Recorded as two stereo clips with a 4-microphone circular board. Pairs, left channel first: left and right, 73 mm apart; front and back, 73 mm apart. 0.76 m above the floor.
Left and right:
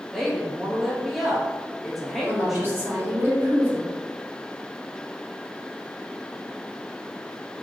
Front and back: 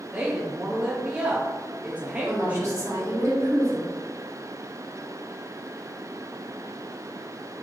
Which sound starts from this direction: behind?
A woman speaking, at 0.1 s.